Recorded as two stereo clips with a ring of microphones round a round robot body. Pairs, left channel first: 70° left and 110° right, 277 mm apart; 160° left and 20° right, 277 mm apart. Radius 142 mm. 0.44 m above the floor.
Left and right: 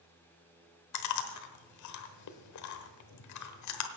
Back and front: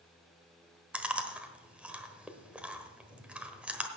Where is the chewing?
65° left, 1.2 m.